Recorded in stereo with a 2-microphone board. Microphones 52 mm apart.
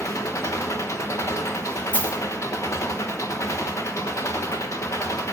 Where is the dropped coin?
25° left (ahead or behind), 1.1 m.